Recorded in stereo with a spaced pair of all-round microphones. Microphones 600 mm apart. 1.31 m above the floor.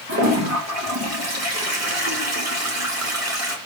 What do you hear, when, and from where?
0.1 s a toilet flushing: 25° right (ahead or behind), 1.1 m